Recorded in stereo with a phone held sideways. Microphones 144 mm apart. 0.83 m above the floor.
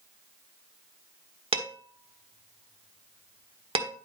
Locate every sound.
1.5 s dishes clattering: 40° right (ahead or behind), 1.3 m